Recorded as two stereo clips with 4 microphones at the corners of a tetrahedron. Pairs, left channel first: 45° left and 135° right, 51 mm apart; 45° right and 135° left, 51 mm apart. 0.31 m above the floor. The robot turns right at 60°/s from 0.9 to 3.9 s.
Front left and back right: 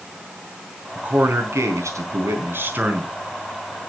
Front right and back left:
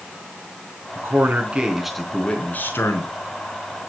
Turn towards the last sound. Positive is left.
turn(degrees=-15)